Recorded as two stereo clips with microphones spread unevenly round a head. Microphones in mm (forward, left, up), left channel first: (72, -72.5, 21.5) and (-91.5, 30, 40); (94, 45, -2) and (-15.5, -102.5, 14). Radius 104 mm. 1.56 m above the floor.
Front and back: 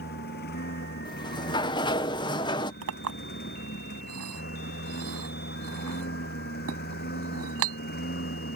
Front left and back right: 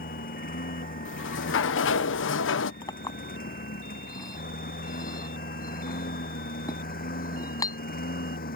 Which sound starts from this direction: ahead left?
A sliding door, at 1.1 s.